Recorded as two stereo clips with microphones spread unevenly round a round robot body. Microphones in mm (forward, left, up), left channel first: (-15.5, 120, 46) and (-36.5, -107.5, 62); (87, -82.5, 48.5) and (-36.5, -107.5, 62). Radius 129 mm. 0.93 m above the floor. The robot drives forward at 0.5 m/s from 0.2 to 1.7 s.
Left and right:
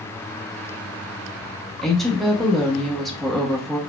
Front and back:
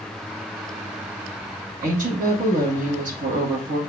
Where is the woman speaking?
175° left, 1.1 m.